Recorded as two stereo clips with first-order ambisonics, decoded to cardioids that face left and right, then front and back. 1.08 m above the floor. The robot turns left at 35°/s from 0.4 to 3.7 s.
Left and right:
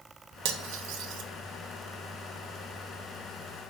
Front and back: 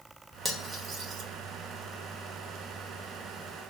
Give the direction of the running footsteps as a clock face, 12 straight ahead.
I don't hear running footsteps.